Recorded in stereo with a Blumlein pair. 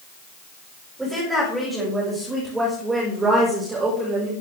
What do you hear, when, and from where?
1.0 s a woman speaking: 5° right, 7 m; by 4.3 s 15° right, 4.5 m